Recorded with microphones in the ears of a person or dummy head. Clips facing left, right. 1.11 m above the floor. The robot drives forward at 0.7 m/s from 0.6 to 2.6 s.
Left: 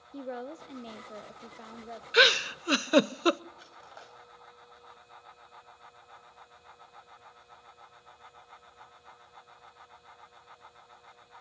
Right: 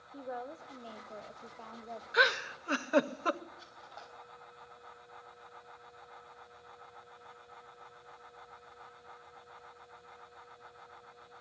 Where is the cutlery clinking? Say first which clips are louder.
Left 1 dB; 30° left (ahead or behind), 4.5 m.